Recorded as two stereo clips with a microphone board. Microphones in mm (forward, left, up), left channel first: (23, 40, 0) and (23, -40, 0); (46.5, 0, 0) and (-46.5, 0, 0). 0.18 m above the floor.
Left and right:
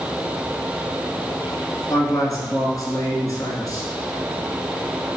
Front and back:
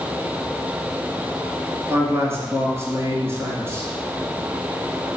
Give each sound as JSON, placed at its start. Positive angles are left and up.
{"t": 1.9, "sound": "a man speaking", "azimuth_deg": 120, "distance_m": 2.0}